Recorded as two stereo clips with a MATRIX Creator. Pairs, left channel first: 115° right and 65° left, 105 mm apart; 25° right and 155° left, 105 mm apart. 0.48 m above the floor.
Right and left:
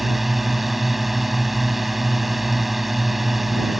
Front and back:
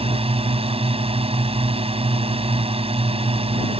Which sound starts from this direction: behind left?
A drone, at 0.0 s.